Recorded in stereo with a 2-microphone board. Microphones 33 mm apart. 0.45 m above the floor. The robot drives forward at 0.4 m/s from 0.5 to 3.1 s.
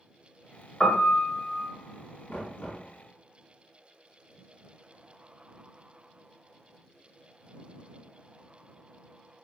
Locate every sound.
0.8 s a piano: 25° left (ahead or behind), 1.0 m; by 1.7 s 35° left (ahead or behind), 0.7 m
2.3 s knocking: 65° left (ahead or behind), 1.4 m; by 2.9 s 55° left (ahead or behind), 1.5 m